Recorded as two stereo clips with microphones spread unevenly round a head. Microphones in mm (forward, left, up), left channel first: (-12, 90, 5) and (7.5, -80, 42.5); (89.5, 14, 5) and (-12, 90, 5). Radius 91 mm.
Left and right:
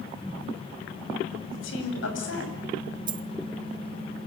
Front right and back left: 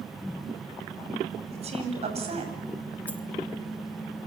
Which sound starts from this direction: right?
A dropped coin, at 3.1 s.